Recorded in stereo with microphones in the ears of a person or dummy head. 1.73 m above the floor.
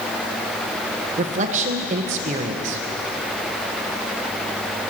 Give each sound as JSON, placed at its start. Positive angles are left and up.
{"t": 1.2, "sound": "a man speaking", "side_deg": -40, "distance_m": 1.1}